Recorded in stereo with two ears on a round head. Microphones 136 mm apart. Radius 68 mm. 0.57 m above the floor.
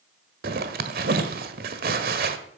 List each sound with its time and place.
0.4 s a zipper: 65° right (ahead or behind), 1.5 m